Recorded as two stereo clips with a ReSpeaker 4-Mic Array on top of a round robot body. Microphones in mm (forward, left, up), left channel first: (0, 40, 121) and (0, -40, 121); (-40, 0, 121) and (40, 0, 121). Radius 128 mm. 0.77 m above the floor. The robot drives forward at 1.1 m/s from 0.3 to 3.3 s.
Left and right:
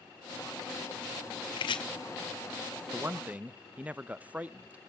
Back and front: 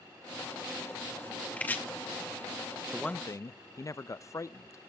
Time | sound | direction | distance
1.6 | chopping | 105° left | 1.9 m
2.9 | a man speaking | 70° right | 0.5 m